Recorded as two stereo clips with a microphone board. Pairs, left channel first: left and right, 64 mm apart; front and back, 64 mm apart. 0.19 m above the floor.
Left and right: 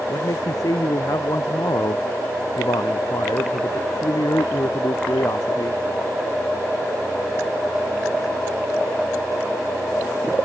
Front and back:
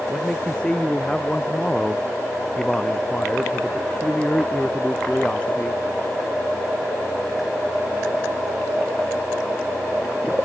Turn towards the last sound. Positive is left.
turn(degrees=75)